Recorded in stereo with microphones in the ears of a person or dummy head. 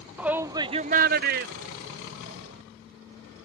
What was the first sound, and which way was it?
A shout, 10° right (ahead or behind).